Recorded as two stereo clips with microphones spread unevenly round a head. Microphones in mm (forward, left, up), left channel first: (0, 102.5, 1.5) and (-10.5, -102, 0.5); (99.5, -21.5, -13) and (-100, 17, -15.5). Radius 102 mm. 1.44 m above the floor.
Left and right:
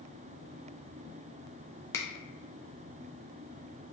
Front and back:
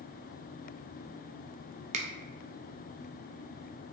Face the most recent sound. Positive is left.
turn(degrees=155)